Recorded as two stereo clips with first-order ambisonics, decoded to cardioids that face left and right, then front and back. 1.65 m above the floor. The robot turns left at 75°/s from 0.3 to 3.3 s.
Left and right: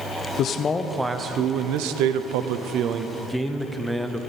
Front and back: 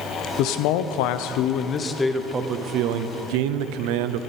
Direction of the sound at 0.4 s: 40° left.